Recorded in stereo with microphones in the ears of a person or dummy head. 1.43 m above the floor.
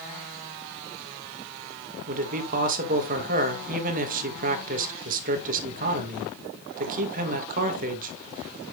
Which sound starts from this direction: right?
A man speaking, at 2.1 s.